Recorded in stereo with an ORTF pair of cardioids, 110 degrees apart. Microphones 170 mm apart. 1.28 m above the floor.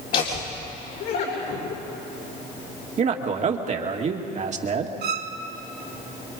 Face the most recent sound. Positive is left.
turn(degrees=-65)